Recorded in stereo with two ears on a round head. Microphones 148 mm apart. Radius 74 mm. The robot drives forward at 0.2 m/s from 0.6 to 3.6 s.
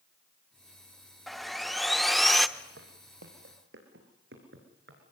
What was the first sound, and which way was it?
Sawing, centre (ahead or behind).